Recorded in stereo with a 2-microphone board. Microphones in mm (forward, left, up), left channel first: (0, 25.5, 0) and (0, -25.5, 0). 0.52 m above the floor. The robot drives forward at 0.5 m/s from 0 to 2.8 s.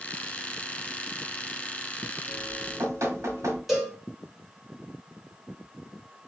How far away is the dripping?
About 1.3 m.